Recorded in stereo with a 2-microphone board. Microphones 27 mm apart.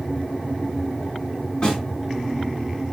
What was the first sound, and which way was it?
A snare drum, 30° left (ahead or behind).